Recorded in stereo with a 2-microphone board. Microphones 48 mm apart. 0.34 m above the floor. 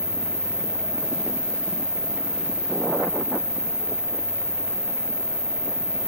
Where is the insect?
15° right (ahead or behind), 1.8 m.